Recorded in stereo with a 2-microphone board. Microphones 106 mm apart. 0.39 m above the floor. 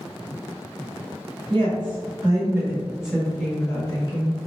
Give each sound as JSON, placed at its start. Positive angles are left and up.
{"t": 1.5, "sound": "a woman speaking", "side_deg": -55, "distance_m": 1.6}